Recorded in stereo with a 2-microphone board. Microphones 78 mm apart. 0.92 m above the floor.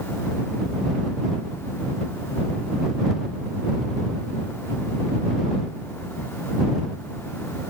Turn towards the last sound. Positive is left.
No sound to turn to.